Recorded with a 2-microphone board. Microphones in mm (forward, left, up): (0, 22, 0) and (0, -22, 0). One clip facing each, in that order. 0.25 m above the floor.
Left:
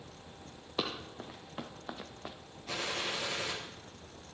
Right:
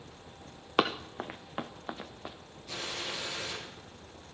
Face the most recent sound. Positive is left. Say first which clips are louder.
# left 2 dB
turn(degrees=80)